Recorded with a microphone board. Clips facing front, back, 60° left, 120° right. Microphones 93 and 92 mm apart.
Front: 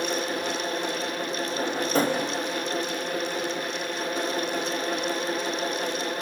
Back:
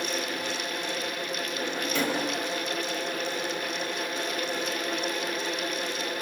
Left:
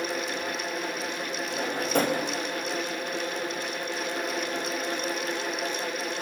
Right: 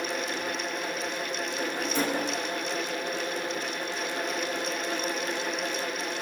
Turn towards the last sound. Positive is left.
turn(degrees=45)